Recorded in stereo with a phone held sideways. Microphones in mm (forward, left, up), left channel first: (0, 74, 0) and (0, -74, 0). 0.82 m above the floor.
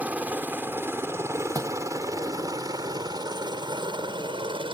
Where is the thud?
25° right (ahead or behind).